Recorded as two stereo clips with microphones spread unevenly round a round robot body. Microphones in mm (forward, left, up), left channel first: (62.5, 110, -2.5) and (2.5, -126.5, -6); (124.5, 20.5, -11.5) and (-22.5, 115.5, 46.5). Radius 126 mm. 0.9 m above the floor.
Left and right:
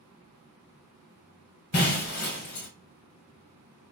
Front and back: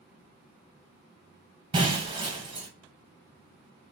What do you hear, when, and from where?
1.7 s breaking glass: 110° left, 1.1 m